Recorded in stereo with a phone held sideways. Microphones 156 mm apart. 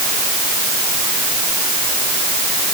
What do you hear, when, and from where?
Only background noise.